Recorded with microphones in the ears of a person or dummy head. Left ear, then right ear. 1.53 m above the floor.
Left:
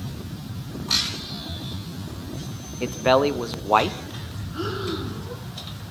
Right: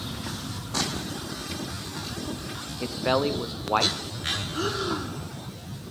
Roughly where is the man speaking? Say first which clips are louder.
Left 6 dB; centre.